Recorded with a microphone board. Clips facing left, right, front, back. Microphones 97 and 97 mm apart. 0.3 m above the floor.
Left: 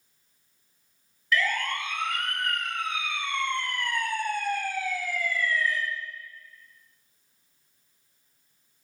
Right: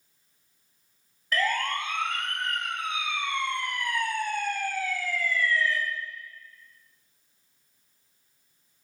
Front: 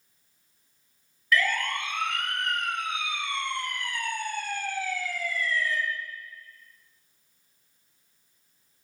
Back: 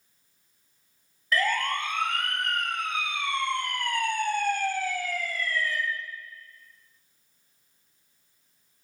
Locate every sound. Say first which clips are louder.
1.3 s a siren: even, even; 130° right, 3.5 m; by 5.8 s 155° left, 3.5 m